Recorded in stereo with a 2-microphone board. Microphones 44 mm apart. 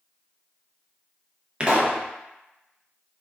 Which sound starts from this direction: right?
A pop, at 1.6 s.